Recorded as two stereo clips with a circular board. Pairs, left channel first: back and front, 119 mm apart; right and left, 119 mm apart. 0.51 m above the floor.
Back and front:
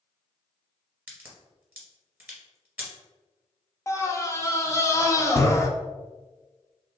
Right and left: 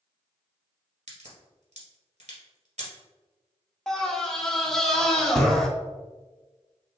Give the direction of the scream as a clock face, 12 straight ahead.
6 o'clock.